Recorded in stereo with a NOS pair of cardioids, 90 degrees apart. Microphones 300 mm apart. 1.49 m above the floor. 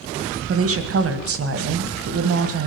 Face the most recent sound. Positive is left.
turn(degrees=-45)